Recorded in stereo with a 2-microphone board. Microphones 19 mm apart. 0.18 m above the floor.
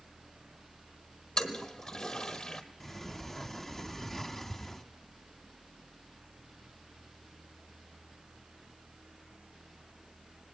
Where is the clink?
No clink in this recording.